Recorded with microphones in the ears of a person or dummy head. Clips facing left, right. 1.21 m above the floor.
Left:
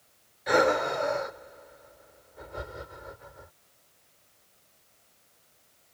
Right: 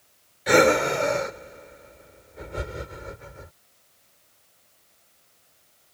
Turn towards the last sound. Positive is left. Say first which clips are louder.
# right 6 dB
turn(degrees=-35)  # may be behind; listen again after turning